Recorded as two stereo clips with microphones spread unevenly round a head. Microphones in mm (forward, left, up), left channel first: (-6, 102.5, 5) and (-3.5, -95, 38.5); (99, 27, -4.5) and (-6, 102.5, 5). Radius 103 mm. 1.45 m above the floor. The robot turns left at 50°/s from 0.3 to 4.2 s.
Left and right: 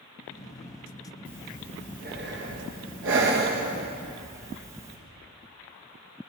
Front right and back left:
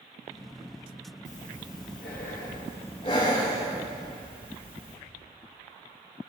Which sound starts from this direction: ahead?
Breathing, at 1.2 s.